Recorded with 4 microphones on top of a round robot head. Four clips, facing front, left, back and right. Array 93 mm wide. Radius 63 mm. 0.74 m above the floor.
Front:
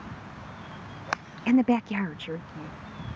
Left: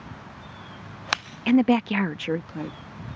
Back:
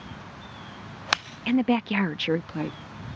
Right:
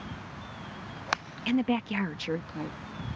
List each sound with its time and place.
1.5 s a woman speaking: 65° left; by 2.8 s 165° left